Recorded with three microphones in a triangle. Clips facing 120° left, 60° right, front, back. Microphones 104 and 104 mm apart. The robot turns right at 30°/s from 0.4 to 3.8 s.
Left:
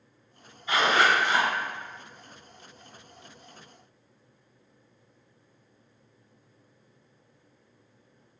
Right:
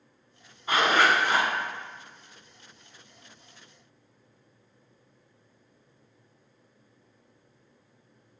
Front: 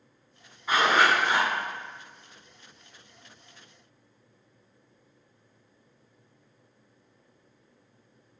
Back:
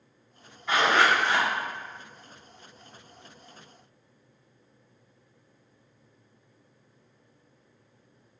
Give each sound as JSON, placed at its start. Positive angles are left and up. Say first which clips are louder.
{"t": 0.7, "sound": "a zipper", "louder": "even, even", "azimuth_deg": -85, "distance_m": 1.7}